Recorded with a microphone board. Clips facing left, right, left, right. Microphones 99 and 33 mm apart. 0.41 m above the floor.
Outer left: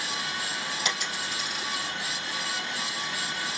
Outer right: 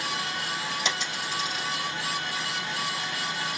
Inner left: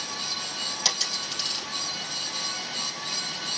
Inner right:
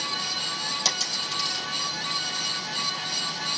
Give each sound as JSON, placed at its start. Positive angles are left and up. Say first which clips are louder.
{"t": 0.8, "sound": "a dropped coin", "louder": "outer right 1 dB, inner left 1 dB", "side_deg": 5, "distance_m": 3.5}